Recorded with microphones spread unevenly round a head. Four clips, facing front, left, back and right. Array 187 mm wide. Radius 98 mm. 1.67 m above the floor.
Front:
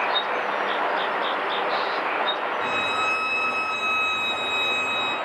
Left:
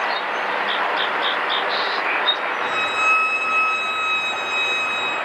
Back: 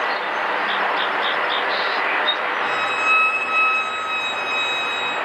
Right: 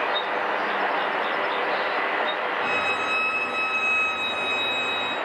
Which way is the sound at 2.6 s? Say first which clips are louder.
Left 3 dB, back 3 dB; 45° right.